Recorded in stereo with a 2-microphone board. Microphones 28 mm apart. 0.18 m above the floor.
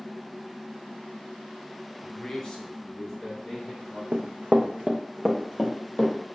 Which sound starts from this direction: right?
Running footsteps, at 4.1 s.